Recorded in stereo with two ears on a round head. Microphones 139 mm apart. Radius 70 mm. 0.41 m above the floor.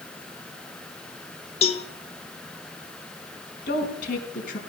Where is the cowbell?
40° left (ahead or behind), 1.0 m.